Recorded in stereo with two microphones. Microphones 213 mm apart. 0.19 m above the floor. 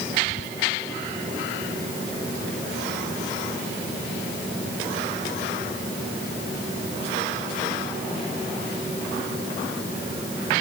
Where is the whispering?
30° left (ahead or behind).